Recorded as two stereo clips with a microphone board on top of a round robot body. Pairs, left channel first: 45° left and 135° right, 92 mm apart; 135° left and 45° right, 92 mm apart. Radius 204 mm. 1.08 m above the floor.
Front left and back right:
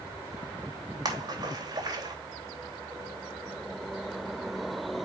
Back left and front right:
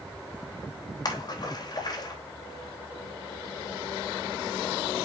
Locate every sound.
1.1 s a splash: 175° left, 3.5 m